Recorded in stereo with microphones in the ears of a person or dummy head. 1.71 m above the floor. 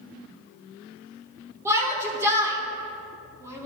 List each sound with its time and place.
1.6 s a shout: 20° right (ahead or behind), 1.1 m